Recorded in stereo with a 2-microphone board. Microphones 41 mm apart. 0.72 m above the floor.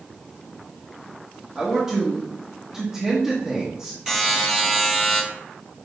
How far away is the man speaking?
About 1.5 m.